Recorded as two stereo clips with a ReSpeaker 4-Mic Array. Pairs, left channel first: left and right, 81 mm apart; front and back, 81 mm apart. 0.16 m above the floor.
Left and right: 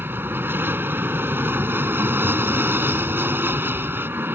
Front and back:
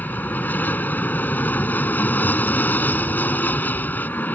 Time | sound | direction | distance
0.0 | an aircraft | 50° right | ?